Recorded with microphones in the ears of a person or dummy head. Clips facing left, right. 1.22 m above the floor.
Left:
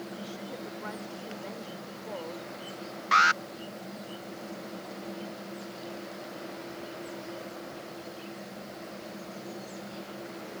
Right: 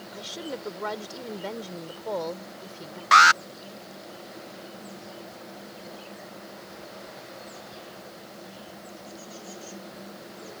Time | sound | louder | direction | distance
0.1 | a woman speaking | right 3 dB | 80° right | ?
3.1 | an alarm | right 7 dB | 55° right (ahead or behind) | ?